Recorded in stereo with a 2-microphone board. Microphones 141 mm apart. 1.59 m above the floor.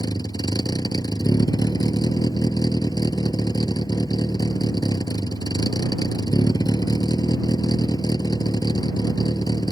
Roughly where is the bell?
No bell in this recording.